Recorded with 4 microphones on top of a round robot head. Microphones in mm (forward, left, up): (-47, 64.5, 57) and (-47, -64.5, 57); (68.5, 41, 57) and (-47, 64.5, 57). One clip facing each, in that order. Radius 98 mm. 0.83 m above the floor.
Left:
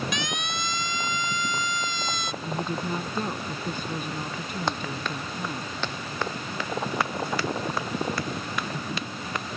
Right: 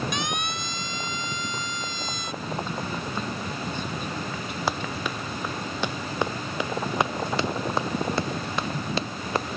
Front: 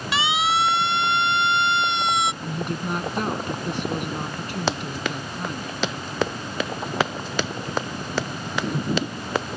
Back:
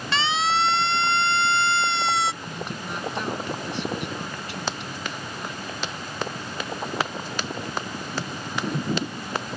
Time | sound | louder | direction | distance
0.1 | a siren | right 2 dB, front 1 dB | 65° left | ?
2.4 | a woman speaking | left 1 dB, front 5 dB | 30° left | ?
4.7 | running footsteps | right 2 dB, front 7 dB | 5° right | ?